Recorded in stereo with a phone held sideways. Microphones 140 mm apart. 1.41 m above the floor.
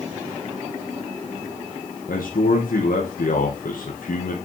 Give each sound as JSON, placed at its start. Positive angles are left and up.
{"t": 2.1, "sound": "a man speaking", "side_deg": 90, "distance_m": 1.2}